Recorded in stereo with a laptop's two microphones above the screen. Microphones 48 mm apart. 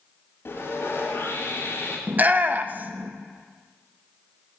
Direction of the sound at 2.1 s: 35° right (ahead or behind).